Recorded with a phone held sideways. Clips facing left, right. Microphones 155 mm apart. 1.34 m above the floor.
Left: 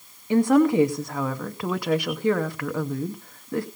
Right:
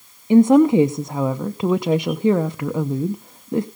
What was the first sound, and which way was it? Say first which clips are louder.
A woman speaking: right 6 dB; 20° right (ahead or behind).